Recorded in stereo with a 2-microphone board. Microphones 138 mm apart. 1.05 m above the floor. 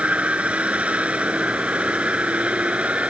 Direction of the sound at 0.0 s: 10° right (ahead or behind).